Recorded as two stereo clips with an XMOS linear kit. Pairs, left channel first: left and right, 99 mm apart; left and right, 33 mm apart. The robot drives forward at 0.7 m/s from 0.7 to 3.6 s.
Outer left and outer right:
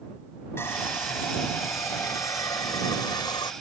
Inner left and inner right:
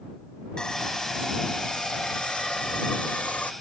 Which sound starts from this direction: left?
Sawing, at 0.6 s.